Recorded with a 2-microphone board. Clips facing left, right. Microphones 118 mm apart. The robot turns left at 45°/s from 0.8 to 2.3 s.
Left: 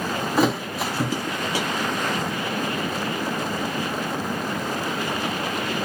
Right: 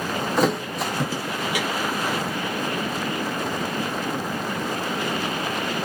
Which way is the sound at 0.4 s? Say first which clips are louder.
Left 1 dB; 5° left (ahead or behind).